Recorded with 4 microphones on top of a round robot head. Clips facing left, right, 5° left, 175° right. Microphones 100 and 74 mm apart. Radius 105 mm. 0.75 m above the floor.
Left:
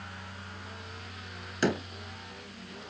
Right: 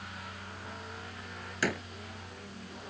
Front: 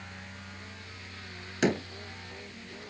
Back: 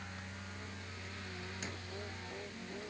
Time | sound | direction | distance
1.6 | a door slam | 25° left | ?